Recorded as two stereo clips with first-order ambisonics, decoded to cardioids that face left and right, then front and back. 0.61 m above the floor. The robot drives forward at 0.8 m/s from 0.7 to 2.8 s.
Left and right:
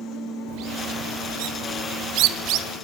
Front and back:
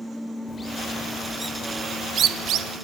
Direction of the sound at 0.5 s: 75° right.